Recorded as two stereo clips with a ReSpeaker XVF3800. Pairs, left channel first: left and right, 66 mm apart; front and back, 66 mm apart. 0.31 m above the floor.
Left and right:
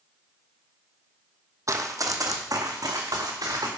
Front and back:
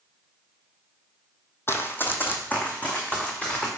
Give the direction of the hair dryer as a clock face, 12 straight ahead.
No hair dryer in this recording.